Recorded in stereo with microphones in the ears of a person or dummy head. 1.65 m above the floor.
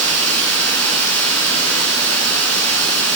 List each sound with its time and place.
0.0 s running water: 10° left (ahead or behind), 5.5 m